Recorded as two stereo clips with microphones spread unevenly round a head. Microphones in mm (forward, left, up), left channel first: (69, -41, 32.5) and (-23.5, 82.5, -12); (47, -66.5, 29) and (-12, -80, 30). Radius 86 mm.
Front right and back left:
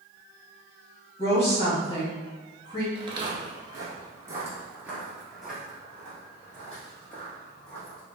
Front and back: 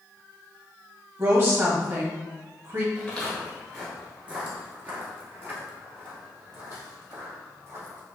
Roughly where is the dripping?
I don't hear dripping.